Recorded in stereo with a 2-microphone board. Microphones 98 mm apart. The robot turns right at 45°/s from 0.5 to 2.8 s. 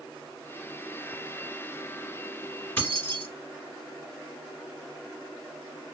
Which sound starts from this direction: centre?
Keys jangling, at 2.8 s.